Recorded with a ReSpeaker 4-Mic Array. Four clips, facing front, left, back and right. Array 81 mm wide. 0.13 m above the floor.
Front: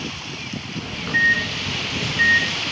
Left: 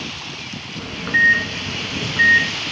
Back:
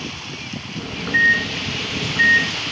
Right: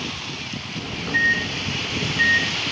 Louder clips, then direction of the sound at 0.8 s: Left 5 dB, back 2 dB; 110° left.